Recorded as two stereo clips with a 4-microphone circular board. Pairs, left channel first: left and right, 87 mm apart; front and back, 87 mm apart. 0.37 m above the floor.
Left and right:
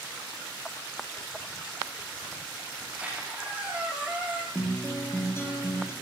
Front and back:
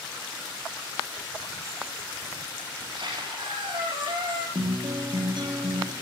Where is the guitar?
150° left, 6 m.